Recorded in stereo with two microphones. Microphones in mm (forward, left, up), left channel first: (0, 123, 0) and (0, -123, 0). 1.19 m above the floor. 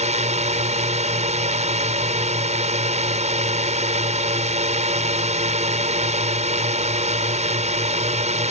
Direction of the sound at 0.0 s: 30° right (ahead or behind).